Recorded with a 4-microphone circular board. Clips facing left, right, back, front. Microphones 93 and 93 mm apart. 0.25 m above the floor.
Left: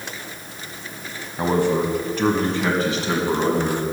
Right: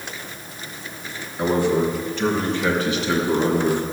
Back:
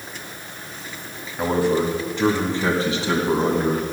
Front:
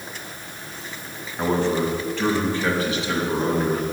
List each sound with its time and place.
1.4 s a man speaking: 95° left, 1.5 m; by 3.8 s 140° left, 2 m